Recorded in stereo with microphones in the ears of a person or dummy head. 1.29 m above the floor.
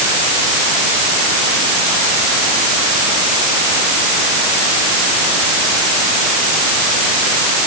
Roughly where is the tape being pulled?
I don't hear tape being pulled.